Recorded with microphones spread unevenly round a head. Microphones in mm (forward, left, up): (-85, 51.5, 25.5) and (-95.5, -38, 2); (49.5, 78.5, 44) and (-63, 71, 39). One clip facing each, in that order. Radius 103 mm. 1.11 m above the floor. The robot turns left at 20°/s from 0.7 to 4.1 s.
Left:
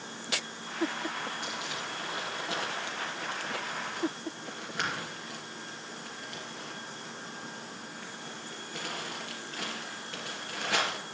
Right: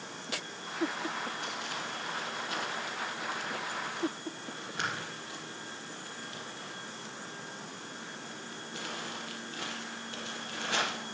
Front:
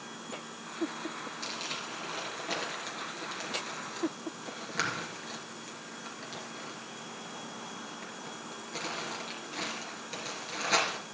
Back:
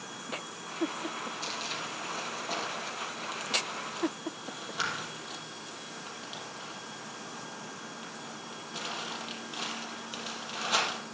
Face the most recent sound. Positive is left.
turn(degrees=-15)